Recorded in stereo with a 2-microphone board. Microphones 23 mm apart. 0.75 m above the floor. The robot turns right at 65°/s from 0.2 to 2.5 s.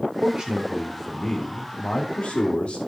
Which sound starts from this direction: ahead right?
A man speaking, at 0.2 s.